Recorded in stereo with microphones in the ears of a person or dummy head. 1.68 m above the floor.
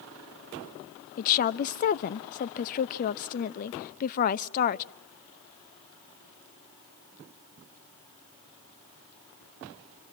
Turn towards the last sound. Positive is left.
turn(degrees=50)  # may be behind; listen again after turning